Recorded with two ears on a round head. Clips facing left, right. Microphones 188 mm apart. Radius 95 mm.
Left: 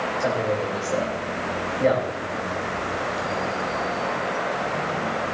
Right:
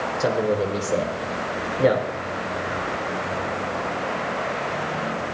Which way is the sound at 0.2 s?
45° right (ahead or behind).